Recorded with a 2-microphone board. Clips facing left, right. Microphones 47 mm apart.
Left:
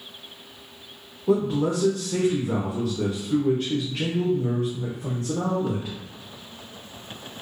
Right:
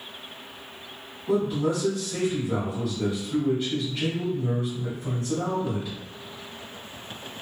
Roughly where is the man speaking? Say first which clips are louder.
Left 2 dB; left.